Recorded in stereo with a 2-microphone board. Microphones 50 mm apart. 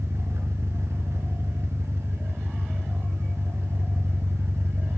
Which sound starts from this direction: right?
An engine running, at 0.0 s.